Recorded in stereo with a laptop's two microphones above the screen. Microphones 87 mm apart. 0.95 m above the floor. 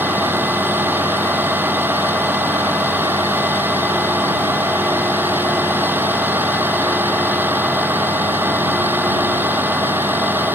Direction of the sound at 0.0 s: 20° right (ahead or behind).